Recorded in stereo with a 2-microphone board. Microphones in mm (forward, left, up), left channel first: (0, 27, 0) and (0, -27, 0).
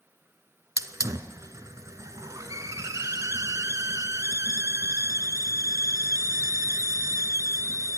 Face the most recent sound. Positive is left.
turn(degrees=-75)  # may be behind; listen again after turning